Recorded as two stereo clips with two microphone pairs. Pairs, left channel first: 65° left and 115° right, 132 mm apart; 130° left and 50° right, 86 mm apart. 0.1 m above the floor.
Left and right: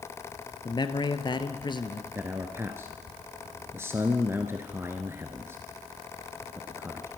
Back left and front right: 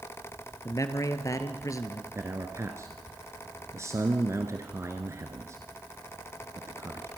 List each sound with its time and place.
0.7 s a man speaking: 105° left, 1.6 m
2.1 s a man speaking: 55° right, 1.6 m